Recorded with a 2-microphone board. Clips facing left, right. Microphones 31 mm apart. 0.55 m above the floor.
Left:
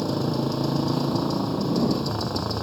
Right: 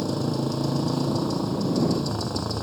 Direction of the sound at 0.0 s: 15° left (ahead or behind).